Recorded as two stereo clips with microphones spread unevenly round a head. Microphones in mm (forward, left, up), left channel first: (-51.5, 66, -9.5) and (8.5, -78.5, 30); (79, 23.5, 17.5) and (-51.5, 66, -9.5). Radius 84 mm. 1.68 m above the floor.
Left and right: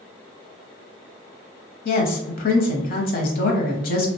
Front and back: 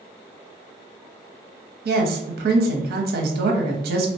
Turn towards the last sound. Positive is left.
turn(degrees=150)